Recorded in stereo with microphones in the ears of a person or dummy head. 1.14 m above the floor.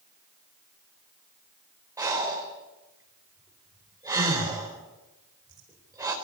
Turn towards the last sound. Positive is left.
turn(degrees=-20)  # may be behind; listen again after turning